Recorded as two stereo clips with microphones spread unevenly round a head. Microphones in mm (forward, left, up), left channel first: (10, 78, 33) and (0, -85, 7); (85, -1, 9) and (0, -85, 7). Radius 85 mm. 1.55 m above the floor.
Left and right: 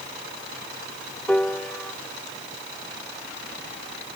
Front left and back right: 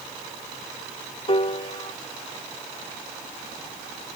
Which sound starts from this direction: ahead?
A piano, at 1.3 s.